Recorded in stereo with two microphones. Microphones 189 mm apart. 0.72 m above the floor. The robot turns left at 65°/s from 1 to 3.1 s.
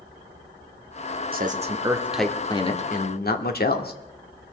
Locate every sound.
1.3 s a man speaking: 125° right, 1.6 m; by 3.9 s 120° left, 1.6 m